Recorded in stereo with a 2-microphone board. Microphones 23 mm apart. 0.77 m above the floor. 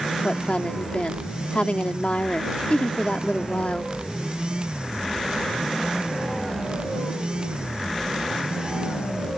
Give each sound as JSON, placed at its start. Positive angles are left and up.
{"t": 0.2, "sound": "a woman speaking", "side_deg": 60}